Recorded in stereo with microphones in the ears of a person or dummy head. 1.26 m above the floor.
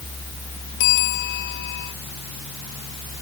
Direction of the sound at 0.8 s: 65° left (ahead or behind).